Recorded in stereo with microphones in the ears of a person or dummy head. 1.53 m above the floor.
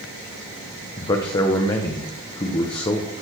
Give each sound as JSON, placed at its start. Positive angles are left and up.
{"t": 1.0, "sound": "a man speaking", "side_deg": 25, "distance_m": 1.2}